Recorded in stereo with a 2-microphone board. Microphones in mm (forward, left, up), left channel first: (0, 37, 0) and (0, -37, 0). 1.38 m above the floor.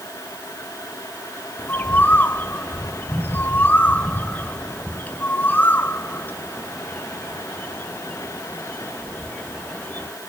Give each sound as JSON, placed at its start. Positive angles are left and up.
{"t": 1.6, "sound": "a bird", "side_deg": 25, "distance_m": 0.8}